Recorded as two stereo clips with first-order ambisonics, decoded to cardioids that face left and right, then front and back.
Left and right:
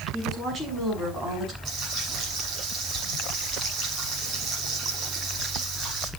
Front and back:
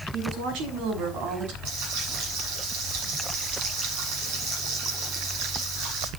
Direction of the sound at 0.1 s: 175° right.